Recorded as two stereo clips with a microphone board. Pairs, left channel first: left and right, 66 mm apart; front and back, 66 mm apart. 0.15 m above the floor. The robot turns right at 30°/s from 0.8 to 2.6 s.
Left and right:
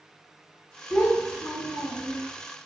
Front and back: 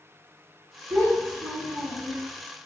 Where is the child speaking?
160° right, 1.7 m; by 2.2 s 120° right, 1.7 m.